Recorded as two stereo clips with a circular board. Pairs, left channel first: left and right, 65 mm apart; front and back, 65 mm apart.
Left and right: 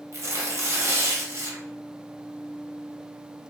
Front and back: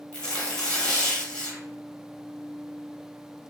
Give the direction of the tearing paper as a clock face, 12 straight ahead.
2 o'clock.